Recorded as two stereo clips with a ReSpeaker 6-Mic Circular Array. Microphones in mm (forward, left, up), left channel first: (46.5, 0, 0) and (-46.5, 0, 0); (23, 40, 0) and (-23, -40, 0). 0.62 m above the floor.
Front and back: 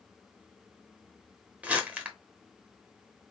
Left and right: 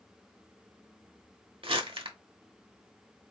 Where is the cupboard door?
No cupboard door in this recording.